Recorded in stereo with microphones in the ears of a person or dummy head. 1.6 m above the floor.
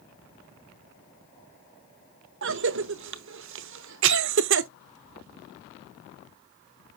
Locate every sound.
2.4 s a cough: 60° right (ahead or behind), 0.7 m